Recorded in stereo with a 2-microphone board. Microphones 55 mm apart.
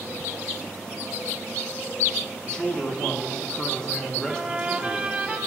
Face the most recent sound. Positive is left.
turn(degrees=-20)  # may be behind; listen again after turning